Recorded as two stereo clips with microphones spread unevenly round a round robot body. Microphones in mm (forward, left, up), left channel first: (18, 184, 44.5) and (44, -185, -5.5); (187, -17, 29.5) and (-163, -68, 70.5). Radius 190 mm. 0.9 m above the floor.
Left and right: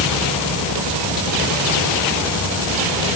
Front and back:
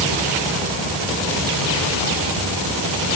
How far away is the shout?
No shout in this recording.